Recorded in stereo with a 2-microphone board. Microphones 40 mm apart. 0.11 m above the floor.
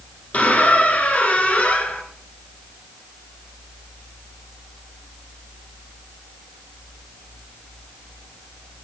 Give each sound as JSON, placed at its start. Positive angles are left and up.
{"t": 0.3, "sound": "a squeak", "side_deg": 35, "distance_m": 1.2}